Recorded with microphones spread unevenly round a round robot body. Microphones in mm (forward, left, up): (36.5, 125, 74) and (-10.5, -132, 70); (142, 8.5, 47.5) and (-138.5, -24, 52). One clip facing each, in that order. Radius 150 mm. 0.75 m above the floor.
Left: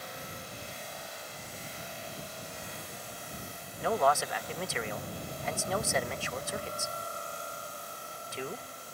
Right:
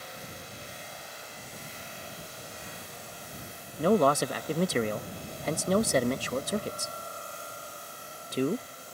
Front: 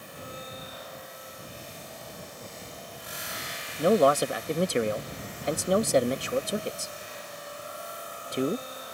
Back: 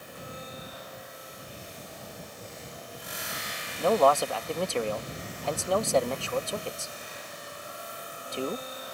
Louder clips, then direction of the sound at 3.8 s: Right 6 dB, front 2 dB; 60° right.